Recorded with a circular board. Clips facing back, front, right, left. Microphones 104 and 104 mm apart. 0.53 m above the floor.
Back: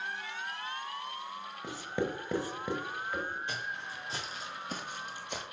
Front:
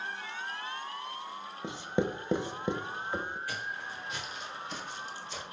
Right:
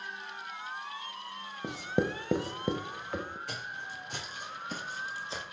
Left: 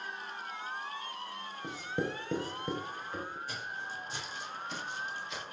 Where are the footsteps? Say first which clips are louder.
Even, even; 110° right, 2 m; by 5.4 s 150° right, 1.6 m.